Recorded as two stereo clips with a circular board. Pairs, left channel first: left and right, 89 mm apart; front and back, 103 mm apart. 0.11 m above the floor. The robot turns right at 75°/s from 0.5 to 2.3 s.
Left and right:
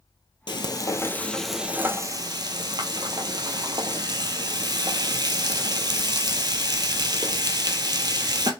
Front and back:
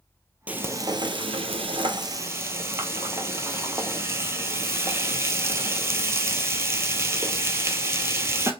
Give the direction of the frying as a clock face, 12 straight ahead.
8 o'clock.